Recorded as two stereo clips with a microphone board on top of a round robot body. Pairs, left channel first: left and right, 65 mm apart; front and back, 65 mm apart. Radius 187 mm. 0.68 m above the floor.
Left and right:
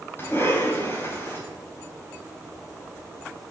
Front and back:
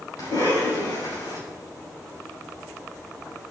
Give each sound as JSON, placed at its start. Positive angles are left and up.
{"t": 0.2, "sound": "a cough", "azimuth_deg": 35, "distance_m": 7.0}